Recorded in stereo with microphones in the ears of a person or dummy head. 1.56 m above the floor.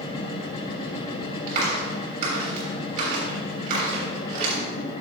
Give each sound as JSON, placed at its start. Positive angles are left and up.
{"t": 0.0, "sound": "a machine running", "side_deg": 25, "distance_m": 1.5}
{"t": 1.5, "sound": "a clap", "side_deg": -50, "distance_m": 3.0}